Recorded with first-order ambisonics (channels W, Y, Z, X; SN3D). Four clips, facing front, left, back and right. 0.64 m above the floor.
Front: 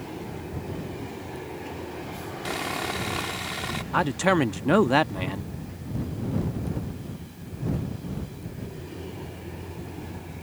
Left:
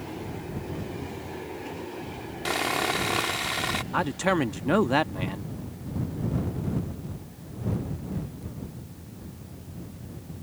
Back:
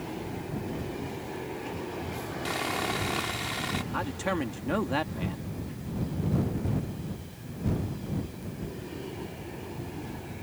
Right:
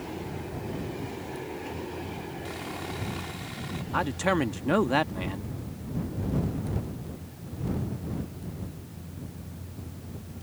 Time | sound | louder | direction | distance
2.5 | sawing | left 14 dB, front 1 dB | 85° left | ?
3.9 | a man speaking | even, front 12 dB | 10° left | ?